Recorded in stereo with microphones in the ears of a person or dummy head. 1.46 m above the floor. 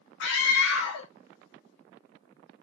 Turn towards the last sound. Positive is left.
turn(degrees=80)